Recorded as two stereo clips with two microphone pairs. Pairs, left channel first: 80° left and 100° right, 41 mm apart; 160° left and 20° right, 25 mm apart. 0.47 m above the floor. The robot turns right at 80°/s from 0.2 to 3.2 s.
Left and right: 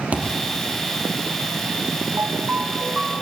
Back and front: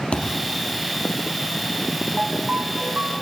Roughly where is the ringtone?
Right.